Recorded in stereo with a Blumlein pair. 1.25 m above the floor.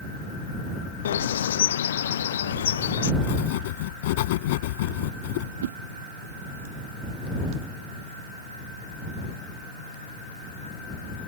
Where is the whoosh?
60° right.